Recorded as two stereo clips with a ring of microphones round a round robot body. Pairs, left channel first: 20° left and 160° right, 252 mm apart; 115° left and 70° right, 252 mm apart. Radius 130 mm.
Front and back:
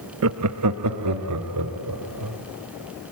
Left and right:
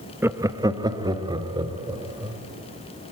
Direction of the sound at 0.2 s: 150° right.